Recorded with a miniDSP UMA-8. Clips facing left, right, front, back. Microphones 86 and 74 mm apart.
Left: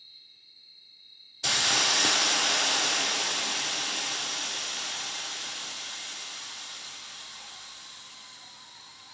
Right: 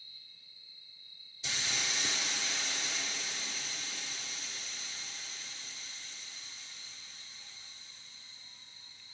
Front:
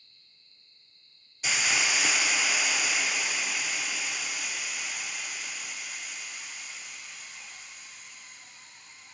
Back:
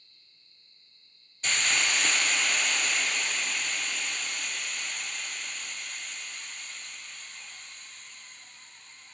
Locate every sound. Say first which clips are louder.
1.4 s a hiss: left 10 dB, even; 80° left, 0.7 m